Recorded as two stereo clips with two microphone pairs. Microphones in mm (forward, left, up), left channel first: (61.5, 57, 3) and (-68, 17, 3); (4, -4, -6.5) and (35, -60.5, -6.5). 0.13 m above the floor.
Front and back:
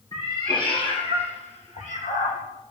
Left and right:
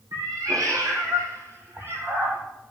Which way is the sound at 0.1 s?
40° right.